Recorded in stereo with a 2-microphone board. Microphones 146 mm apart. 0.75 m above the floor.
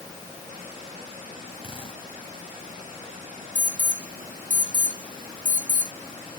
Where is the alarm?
60° right (ahead or behind).